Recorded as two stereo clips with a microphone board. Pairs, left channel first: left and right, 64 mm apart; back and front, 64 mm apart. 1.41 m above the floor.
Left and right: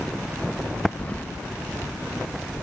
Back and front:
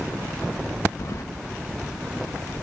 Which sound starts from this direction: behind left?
Keys jangling, at 1.0 s.